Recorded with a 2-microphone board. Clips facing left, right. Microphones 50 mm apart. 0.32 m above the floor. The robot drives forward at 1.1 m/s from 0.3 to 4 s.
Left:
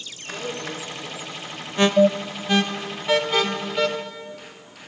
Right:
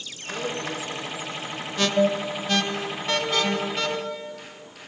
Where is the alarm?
25° left (ahead or behind), 0.9 m; by 3.9 s 5° left (ahead or behind), 2.5 m.